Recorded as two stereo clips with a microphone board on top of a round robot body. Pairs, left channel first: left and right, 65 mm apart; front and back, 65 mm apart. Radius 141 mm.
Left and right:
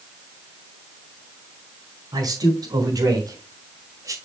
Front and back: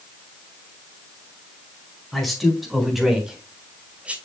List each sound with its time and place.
2.1 s a man speaking: 85° right, 4.5 m; by 4.2 s 110° right, 2.5 m